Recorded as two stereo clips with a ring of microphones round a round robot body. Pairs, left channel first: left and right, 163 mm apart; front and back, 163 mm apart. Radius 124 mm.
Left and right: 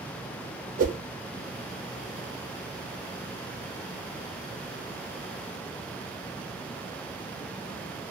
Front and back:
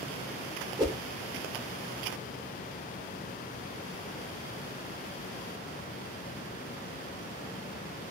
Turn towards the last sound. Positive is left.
turn(degrees=-115)